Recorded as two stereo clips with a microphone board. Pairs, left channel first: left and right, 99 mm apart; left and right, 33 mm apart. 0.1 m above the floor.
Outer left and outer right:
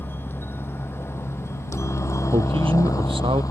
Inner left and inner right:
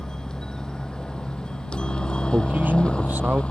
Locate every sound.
0.0 s a helicopter: 20° left (ahead or behind); by 3.5 s 35° left (ahead or behind)
2.3 s a man speaking: 65° right (ahead or behind)